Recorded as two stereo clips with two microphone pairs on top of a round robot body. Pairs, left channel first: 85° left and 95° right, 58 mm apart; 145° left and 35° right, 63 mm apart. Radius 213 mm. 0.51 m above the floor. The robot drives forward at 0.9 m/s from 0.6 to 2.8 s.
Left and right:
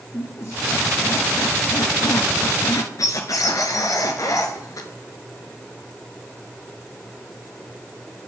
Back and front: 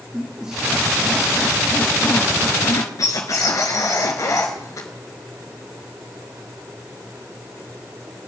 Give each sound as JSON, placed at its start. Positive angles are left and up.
{"t": 0.1, "sound": "a squeak", "azimuth_deg": 45, "distance_m": 2.0}